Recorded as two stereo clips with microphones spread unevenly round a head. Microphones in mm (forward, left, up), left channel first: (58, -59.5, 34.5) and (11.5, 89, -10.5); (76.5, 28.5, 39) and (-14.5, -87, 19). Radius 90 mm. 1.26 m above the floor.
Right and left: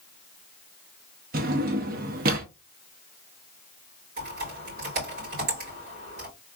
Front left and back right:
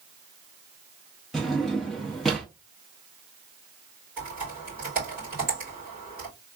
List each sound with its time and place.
1.3 s a drawer: 130° left, 0.6 m
4.2 s typing on a keyboard: 155° left, 3 m